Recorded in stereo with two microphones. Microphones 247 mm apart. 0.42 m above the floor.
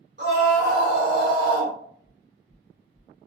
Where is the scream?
50° right (ahead or behind), 1.6 m.